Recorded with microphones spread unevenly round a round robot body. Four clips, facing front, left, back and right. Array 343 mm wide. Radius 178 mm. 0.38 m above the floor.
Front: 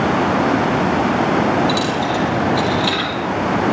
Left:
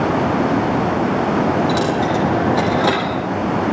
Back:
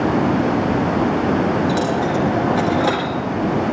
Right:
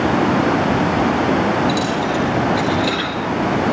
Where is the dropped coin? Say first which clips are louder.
Left 2 dB, even; 90° left, 4.5 m.